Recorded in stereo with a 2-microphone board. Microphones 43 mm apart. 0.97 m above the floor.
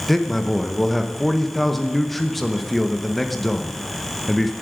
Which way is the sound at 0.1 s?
5° left (ahead or behind).